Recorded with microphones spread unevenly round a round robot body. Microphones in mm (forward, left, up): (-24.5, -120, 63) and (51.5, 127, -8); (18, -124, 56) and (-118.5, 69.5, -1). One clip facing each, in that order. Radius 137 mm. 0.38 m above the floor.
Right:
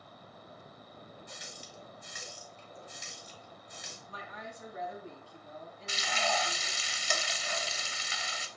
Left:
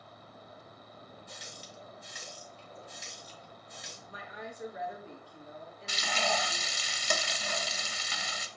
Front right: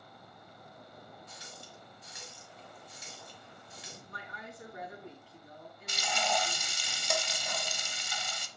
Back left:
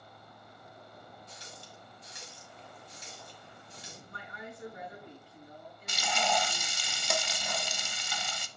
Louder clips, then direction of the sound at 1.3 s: Even, even; 65° right.